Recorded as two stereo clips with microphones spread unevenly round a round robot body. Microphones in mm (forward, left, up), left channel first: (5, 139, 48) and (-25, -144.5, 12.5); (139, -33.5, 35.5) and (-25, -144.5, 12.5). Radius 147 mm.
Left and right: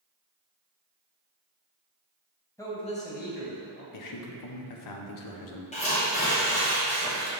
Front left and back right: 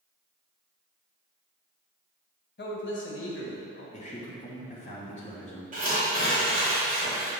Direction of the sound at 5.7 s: 155° left.